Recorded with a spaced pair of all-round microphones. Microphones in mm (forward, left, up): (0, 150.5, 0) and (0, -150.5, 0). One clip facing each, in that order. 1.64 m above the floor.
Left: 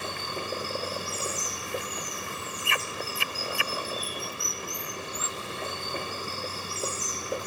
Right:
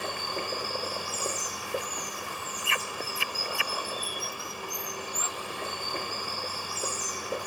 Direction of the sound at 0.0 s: 25° left (ahead or behind).